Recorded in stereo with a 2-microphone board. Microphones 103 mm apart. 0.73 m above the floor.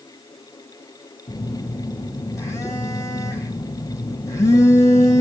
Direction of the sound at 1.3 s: 30° left (ahead or behind).